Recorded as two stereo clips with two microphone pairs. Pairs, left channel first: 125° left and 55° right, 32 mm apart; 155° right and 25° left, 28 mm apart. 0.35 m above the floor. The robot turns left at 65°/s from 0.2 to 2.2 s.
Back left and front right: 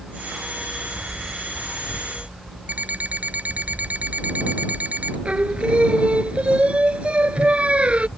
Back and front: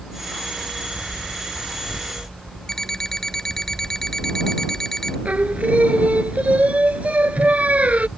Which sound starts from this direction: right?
An alarm clock, at 2.7 s.